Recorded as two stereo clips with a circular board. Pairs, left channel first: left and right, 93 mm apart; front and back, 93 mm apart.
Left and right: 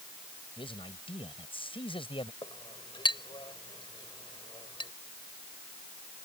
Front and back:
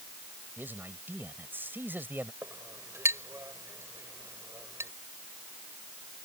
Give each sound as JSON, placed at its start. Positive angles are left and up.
{"t": 0.6, "sound": "a man speaking", "azimuth_deg": 110}
{"t": 2.4, "sound": "a clink", "azimuth_deg": 120}